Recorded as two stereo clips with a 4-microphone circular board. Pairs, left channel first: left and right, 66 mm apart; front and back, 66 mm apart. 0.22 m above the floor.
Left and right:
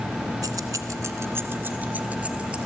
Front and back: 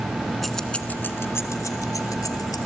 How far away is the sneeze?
I don't hear a sneeze.